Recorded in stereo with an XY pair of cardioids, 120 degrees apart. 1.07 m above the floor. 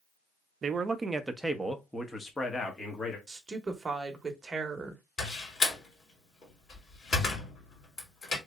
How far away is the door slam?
About 2 m.